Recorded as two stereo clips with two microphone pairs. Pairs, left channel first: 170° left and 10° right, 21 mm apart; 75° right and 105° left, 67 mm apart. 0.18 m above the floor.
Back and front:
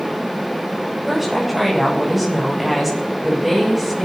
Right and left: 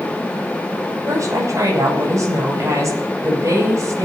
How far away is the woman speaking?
About 10 m.